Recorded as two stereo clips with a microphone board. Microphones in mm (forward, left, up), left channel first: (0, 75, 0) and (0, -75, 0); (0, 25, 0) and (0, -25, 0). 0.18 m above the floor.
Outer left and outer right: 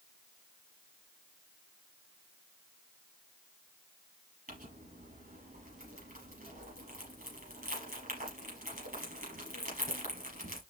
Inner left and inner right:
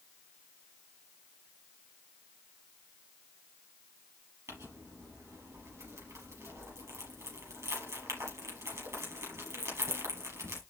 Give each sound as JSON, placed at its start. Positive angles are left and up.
{"t": 4.5, "sound": "crumpling", "side_deg": -70, "distance_m": 5.5}